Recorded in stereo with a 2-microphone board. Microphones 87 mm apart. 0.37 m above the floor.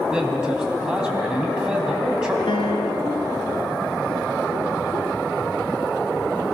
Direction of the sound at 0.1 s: 10° right (ahead or behind).